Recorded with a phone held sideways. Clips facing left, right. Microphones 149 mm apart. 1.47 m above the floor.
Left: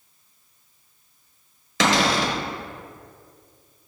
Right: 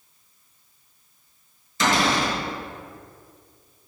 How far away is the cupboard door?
About 0.9 m.